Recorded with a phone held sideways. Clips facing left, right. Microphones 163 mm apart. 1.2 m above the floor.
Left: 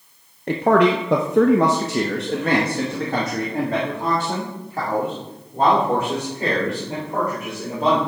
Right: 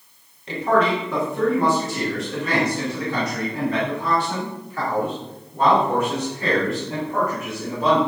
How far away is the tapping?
No tapping in this recording.